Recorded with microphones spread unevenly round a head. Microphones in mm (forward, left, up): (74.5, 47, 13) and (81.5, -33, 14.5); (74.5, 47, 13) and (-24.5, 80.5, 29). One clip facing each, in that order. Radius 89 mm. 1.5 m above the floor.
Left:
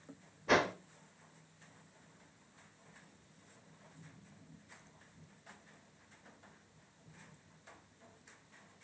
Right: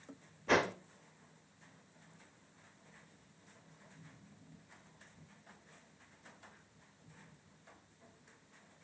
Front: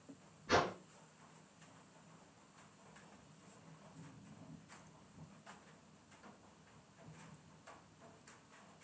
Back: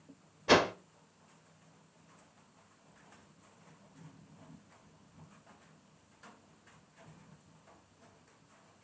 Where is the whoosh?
175° right, 0.8 m.